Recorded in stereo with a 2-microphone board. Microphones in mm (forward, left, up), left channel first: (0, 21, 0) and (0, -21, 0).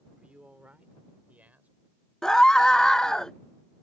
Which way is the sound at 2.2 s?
15° left (ahead or behind).